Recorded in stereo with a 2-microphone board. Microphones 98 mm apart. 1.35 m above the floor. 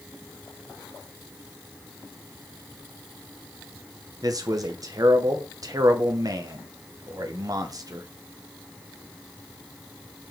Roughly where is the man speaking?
Right.